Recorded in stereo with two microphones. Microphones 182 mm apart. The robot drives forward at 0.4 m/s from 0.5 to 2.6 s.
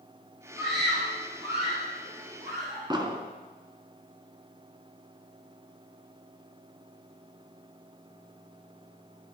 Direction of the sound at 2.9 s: 25° right (ahead or behind).